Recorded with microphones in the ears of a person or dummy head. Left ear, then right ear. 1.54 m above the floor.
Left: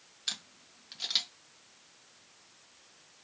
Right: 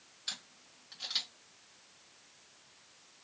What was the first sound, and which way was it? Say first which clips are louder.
A camera shutter: left 4 dB; 20° left (ahead or behind).